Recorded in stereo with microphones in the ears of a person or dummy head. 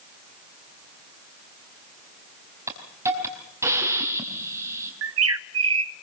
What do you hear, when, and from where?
2.7 s a hiss: 15° right (ahead or behind), 5 m
5.0 s a bird: 80° right, 0.7 m